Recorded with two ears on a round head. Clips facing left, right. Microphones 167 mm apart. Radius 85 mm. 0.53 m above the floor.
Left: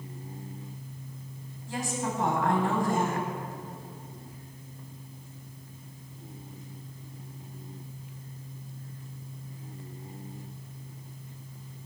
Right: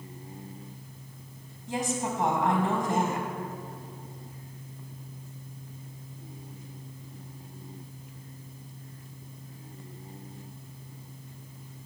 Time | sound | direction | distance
1.7 | a woman speaking | 20° right (ahead or behind) | 3 m